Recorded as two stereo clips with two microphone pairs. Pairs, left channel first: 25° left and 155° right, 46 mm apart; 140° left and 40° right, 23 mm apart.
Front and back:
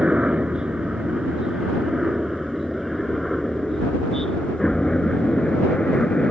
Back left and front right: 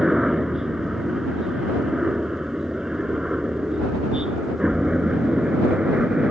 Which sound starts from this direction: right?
A helicopter, at 0.0 s.